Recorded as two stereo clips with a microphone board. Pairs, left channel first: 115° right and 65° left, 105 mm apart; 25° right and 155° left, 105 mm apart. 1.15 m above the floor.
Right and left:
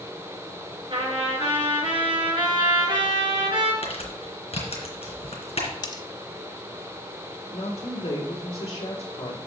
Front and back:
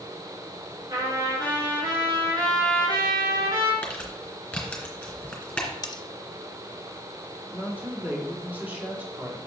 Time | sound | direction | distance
0.9 | a trumpet | 105° left | 3.5 m
3.8 | crumpling | 105° right | 3 m
5.8 | cutlery clinking | 70° right | 0.9 m
7.5 | a woman speaking | 130° right | 2.5 m